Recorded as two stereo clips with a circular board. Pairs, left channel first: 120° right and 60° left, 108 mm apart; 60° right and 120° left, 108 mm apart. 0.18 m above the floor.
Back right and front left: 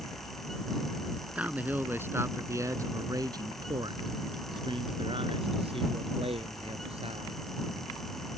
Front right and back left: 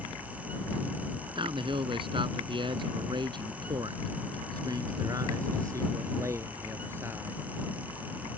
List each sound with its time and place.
1.4 s a man speaking: 135° left; by 7.5 s 55° left